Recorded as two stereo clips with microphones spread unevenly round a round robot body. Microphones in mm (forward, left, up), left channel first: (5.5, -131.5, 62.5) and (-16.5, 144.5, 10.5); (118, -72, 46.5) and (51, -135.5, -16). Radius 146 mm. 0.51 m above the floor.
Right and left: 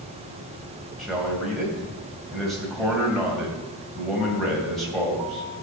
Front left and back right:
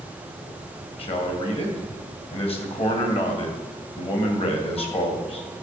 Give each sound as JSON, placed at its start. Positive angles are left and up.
{"t": 1.0, "sound": "a man speaking", "azimuth_deg": 5, "distance_m": 2.5}